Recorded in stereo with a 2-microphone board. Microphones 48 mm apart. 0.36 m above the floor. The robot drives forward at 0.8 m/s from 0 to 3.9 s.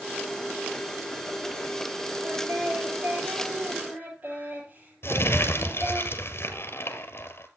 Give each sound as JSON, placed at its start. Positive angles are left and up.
{"t": 2.2, "sound": "singing", "side_deg": -40, "distance_m": 7.5}
{"t": 5.0, "sound": "crumpling", "side_deg": 55, "distance_m": 1.7}